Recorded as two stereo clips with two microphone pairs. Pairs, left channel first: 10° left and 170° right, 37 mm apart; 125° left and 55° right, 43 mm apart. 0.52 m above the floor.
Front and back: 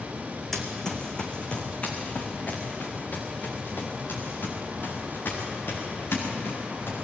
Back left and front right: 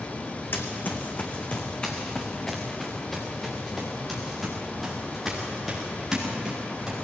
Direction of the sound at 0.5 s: 90° left.